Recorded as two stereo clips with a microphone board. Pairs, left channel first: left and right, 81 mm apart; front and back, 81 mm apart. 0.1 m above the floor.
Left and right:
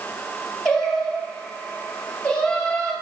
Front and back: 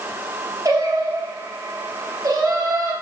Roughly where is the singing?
Behind.